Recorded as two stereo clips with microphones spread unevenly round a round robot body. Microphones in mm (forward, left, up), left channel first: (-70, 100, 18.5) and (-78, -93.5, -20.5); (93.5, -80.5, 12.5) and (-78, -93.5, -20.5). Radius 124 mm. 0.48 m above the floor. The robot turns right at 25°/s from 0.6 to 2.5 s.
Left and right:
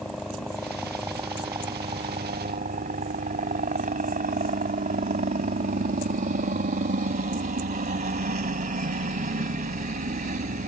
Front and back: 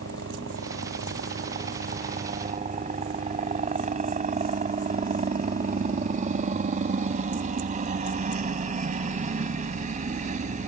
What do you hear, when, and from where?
0.0 s a helicopter: 175° left; by 10.7 s 135° right